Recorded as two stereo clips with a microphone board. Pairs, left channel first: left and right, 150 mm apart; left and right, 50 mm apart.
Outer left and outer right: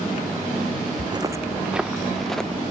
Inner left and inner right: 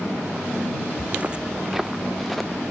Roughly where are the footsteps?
Right.